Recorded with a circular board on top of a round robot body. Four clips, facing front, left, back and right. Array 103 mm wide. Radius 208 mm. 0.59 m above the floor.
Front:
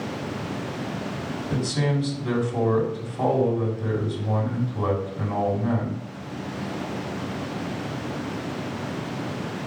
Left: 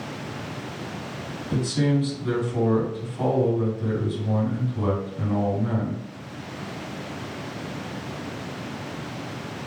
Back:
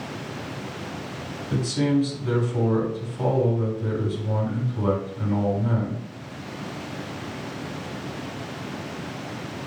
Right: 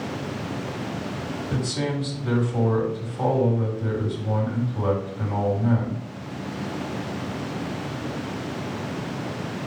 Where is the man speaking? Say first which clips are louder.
Left 5 dB, back 4 dB; 5° left, 4 m.